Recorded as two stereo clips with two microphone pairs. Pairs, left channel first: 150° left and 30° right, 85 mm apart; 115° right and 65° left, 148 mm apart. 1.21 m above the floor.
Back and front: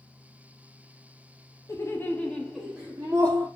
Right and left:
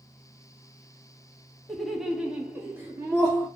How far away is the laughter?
About 0.7 m.